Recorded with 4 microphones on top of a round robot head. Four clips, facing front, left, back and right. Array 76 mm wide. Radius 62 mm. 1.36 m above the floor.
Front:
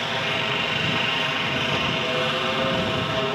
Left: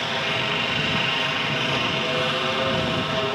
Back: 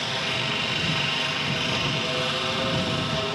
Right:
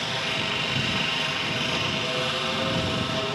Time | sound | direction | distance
0.0 | a helicopter | 45° left | ?